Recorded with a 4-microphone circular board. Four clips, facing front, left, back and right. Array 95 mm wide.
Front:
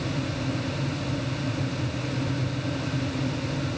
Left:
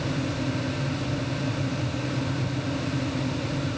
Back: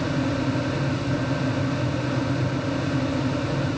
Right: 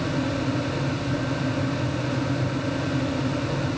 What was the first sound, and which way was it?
Only background noise.